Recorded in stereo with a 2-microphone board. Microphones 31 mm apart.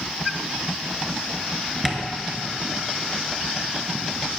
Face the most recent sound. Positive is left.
turn(degrees=5)  # may be behind; listen again after turning